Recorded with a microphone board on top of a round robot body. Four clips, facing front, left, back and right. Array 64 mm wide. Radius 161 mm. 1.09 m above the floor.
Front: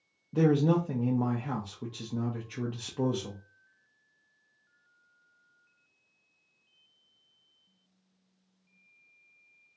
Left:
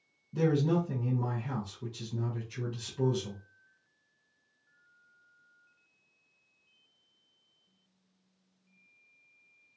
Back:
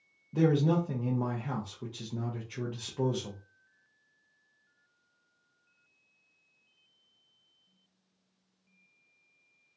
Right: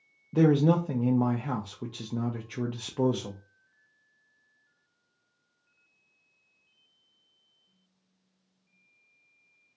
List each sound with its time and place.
0.3 s a man speaking: 80° right, 0.6 m